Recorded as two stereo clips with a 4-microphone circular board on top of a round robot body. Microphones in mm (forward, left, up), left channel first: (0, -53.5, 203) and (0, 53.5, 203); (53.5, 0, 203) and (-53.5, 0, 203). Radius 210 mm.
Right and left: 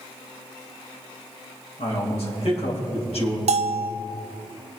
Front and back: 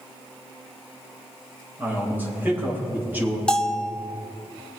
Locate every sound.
1.8 s a man speaking: 110° right, 3.5 m
3.5 s a bell: 85° left, 0.5 m